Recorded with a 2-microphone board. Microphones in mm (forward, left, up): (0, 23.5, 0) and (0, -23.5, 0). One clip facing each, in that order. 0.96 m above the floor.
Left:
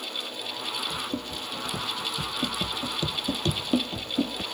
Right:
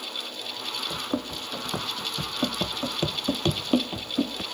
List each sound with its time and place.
0.9 s running footsteps: 55° right (ahead or behind); by 4.4 s 5° right (ahead or behind)